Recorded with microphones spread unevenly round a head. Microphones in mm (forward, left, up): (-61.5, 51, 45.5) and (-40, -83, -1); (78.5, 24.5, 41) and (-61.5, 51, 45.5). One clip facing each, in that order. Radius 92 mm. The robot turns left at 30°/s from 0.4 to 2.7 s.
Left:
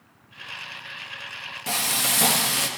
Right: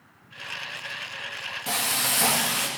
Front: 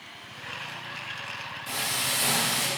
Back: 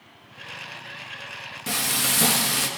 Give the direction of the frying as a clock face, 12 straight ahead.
6 o'clock.